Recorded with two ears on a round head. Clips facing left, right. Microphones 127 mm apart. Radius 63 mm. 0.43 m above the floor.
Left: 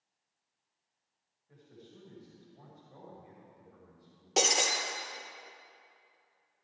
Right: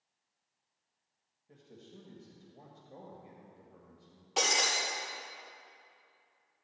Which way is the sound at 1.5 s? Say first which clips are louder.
Right 1 dB; 35° right (ahead or behind).